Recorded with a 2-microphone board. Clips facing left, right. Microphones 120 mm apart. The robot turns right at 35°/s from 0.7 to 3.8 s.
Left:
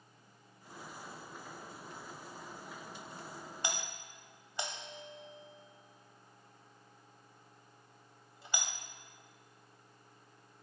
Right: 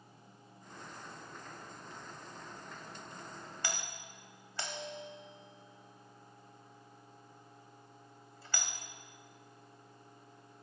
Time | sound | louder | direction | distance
3.6 | a doorbell | left 1 dB | 20° left (ahead or behind) | 1.9 m